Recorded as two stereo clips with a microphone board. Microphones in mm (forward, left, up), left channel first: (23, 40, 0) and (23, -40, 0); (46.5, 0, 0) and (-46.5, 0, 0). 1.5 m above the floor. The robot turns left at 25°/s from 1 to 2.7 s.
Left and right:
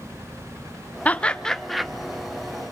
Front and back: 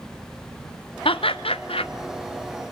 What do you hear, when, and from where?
1.1 s laughter: 20° left, 1.2 m; by 1.9 s 5° right, 1.2 m